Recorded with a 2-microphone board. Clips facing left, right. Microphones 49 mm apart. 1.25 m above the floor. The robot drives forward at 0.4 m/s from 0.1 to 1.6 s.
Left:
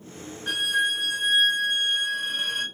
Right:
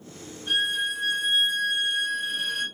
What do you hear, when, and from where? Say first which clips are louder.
0.5 s a violin: left 2 dB; 70° left (ahead or behind), 0.7 m; by 2.6 s 45° left (ahead or behind), 0.9 m